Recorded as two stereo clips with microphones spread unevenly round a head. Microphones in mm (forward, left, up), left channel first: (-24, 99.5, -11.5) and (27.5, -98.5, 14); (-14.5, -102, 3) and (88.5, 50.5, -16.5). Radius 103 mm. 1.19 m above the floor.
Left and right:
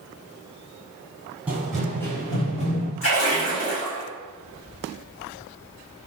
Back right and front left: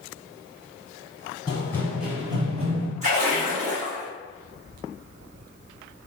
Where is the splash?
110° left, 1.4 m.